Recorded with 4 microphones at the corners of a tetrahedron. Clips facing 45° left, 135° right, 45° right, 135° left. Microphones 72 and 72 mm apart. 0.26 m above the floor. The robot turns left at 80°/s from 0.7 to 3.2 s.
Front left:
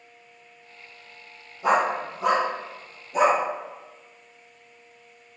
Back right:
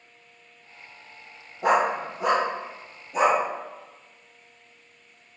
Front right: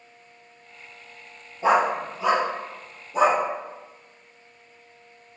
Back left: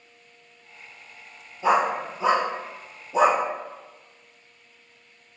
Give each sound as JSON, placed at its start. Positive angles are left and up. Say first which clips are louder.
{"t": 1.6, "sound": "a dog barking", "louder": "even, front right 1 dB", "azimuth_deg": -105, "distance_m": 1.5}